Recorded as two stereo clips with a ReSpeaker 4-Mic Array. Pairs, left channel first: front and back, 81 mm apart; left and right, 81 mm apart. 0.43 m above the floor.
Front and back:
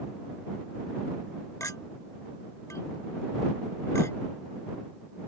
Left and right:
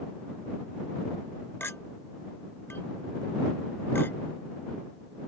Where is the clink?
40° left.